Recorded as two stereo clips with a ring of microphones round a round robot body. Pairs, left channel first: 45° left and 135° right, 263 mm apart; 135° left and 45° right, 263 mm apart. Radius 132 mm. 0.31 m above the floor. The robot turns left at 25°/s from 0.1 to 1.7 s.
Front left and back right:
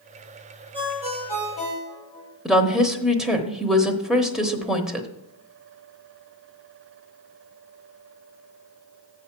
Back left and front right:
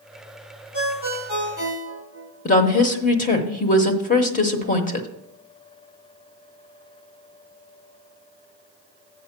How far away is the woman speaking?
About 0.9 m.